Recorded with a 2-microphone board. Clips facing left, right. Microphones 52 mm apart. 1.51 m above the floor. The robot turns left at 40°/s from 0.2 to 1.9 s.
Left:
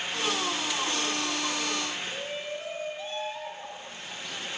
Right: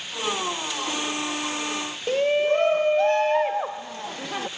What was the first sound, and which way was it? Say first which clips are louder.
A shout: right 14 dB; 65° right (ahead or behind).